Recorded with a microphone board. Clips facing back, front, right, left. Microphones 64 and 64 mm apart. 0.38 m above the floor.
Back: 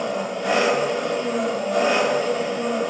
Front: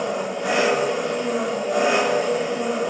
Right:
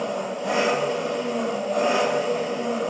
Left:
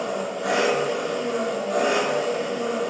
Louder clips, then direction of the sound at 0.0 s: Even, left 1 dB; 75° left.